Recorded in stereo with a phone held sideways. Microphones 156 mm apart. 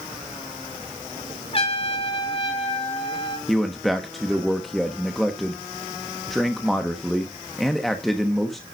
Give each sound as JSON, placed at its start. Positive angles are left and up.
{"t": 1.5, "sound": "a trumpet", "side_deg": 40, "distance_m": 3.0}
{"t": 3.5, "sound": "a man speaking", "side_deg": 0, "distance_m": 1.2}